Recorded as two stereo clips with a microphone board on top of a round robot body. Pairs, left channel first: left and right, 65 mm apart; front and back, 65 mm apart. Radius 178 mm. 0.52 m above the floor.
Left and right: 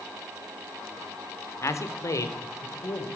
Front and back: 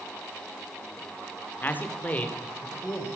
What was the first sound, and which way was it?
A man speaking, 60° left.